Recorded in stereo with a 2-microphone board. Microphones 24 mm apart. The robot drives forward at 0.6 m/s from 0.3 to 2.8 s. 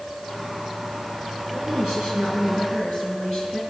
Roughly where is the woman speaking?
Right.